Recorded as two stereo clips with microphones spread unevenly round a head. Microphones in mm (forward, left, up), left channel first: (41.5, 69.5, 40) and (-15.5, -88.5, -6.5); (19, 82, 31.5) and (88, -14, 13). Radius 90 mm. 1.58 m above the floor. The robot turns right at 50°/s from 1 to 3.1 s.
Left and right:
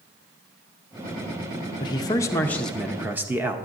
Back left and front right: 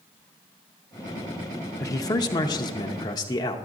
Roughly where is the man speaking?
Left.